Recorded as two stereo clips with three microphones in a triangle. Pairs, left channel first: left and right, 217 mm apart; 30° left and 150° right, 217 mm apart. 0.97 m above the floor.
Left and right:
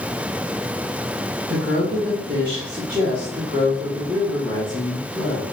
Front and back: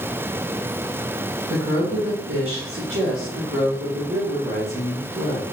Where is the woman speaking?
140° right, 1.4 m; by 5.4 s 170° left, 2.5 m.